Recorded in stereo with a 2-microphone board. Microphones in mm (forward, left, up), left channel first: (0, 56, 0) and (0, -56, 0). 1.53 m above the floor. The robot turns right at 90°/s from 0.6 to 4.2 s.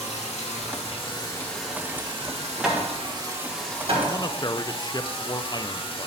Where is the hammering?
5° right (ahead or behind), 3 m; by 4.1 s 45° right (ahead or behind), 3 m.